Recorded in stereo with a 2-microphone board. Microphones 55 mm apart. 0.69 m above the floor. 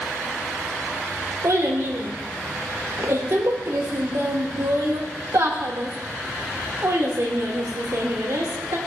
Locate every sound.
1.4 s a child speaking: 70° right (ahead or behind), 1.6 m